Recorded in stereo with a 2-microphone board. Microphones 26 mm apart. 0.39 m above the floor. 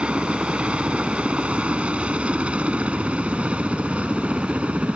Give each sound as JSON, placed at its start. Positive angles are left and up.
{"t": 0.0, "sound": "a helicopter", "side_deg": -50}